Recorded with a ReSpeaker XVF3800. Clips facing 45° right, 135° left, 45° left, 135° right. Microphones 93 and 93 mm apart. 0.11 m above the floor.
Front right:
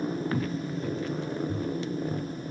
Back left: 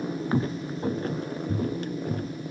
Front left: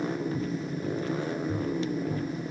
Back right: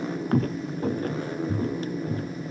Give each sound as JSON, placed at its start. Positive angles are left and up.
{"t": 0.3, "sound": "footsteps", "azimuth_deg": -160}